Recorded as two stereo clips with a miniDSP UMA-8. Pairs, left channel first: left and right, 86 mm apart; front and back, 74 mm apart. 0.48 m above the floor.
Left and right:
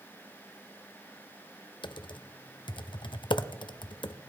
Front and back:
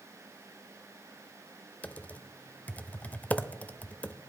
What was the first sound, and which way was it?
Typing on a keyboard, 70° left.